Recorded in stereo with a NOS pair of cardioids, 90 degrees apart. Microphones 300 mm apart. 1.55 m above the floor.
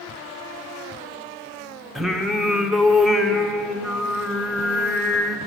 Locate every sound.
1.9 s singing: straight ahead, 0.9 m